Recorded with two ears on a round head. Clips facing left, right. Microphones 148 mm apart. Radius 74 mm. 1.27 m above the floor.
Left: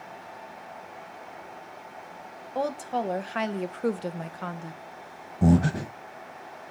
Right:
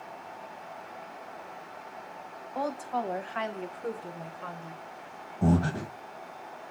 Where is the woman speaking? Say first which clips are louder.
Left 3 dB; 30° left (ahead or behind), 1.1 m; by 4.8 s 55° left (ahead or behind), 0.8 m.